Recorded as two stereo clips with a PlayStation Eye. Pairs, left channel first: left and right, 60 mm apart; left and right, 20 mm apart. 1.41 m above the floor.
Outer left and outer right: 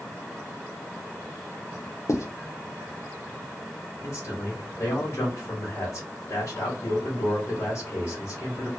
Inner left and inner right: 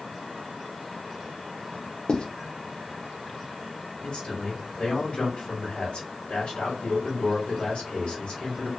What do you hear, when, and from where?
2.1 s writing: 55° left (ahead or behind), 0.6 m
4.0 s a man speaking: 50° left (ahead or behind), 1.1 m